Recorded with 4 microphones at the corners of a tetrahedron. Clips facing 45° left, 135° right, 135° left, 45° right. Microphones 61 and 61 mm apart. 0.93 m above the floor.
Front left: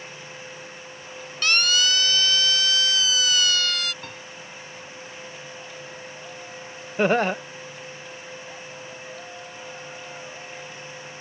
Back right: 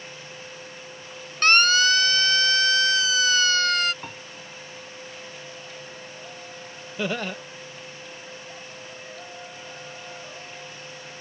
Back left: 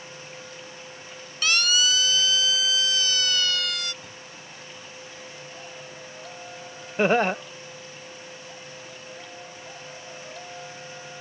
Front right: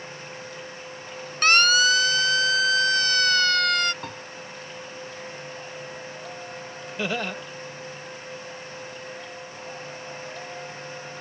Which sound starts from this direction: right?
A siren, at 1.4 s.